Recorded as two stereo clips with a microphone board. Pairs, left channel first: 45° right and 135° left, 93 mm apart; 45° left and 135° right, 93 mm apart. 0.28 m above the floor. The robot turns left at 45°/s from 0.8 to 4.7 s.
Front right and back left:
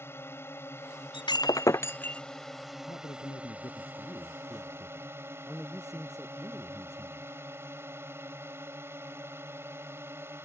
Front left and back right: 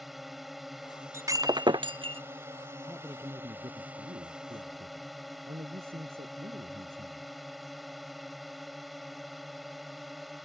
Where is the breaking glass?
75° right; by 2.2 s 120° right.